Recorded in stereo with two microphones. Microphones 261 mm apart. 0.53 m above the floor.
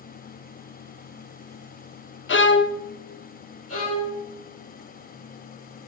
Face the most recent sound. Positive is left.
turn(degrees=60)  # may be behind; listen again after turning